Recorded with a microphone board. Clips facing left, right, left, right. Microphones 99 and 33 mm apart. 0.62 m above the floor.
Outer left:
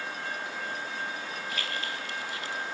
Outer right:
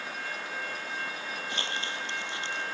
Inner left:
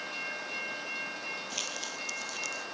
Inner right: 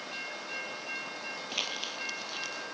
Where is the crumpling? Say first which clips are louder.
Even, inner right 2 dB; 30° right (ahead or behind).